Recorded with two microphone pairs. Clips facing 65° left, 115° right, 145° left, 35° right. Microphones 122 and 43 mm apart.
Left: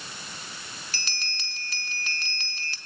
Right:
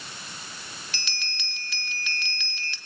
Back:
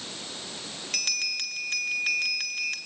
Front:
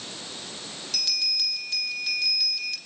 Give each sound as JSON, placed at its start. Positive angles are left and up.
{"t": 0.9, "sound": "a bell", "azimuth_deg": 110, "distance_m": 1.8}